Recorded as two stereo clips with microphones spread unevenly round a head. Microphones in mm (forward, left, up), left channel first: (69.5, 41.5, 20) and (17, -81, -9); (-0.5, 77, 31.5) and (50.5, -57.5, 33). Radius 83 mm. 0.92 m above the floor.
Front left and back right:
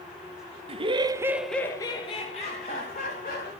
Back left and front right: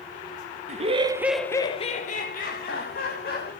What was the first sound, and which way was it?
Laughter, 95° right.